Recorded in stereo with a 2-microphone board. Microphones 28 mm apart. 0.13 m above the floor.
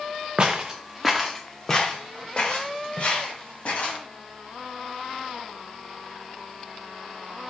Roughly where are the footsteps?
Right.